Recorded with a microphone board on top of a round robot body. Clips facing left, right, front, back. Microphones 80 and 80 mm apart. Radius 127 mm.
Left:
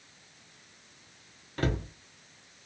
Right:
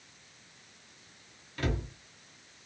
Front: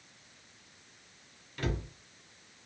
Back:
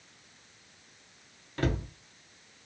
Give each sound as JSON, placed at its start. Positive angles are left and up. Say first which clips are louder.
{"t": 1.6, "sound": "a cupboard door", "louder": "left 3 dB, back 5 dB", "azimuth_deg": 135, "distance_m": 0.7}